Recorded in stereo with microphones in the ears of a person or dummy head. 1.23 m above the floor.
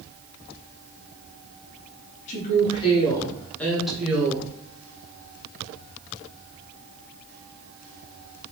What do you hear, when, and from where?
2.3 s a woman speaking: 40° left (ahead or behind), 1.3 m; by 4.5 s 15° right (ahead or behind), 1.2 m